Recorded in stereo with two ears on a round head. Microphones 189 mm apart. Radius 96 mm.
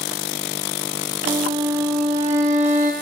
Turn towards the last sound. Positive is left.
turn(degrees=-35)  # may be behind; listen again after turning